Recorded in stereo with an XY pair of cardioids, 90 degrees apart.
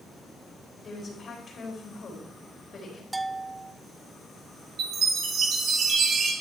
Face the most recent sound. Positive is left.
turn(degrees=-70)